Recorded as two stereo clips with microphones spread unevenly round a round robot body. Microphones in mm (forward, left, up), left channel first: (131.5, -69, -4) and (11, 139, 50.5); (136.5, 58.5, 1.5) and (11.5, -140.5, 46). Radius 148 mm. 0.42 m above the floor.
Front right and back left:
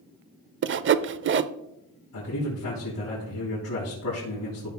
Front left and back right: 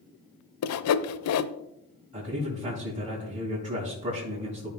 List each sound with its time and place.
0.6 s sawing: 70° left, 0.5 m
2.1 s a man speaking: 60° right, 3.5 m